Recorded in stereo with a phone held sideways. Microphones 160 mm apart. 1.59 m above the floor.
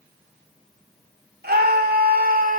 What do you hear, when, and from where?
1.4 s a scream: 80° right, 3.5 m; by 2.6 s 65° right (ahead or behind), 3 m